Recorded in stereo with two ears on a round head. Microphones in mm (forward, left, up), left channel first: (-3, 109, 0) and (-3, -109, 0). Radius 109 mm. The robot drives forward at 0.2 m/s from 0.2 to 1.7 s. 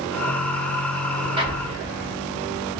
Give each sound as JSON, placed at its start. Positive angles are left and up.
{"t": 1.4, "sound": "an explosion", "side_deg": -25, "distance_m": 0.9}